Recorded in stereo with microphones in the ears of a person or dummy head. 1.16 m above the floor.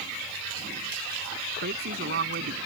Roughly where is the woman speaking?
Right.